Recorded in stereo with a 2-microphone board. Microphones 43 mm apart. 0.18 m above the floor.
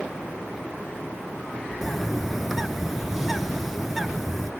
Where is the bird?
5° right (ahead or behind), 0.6 m.